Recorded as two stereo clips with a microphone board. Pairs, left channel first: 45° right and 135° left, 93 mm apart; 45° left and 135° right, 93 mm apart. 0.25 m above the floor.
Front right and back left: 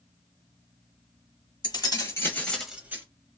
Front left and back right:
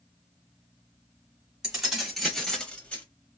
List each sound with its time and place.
1.6 s keys jangling: 55° right, 1.4 m; by 3.0 s 105° left, 1.0 m